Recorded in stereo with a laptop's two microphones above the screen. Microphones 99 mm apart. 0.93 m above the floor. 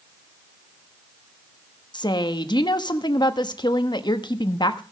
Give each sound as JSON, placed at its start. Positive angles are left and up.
{"t": 1.9, "sound": "a woman speaking", "side_deg": 45, "distance_m": 1.0}